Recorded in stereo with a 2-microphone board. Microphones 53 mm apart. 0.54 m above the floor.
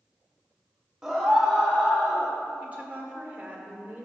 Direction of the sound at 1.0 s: 5° right (ahead or behind).